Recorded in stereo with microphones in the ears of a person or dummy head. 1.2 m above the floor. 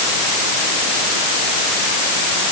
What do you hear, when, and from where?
Only background noise.